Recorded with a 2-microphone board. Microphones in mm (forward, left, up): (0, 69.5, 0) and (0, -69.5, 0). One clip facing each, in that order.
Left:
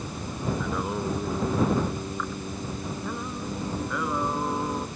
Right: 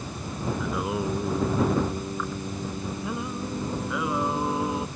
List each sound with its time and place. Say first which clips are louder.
0.6 s singing: right 1 dB; 5° right (ahead or behind)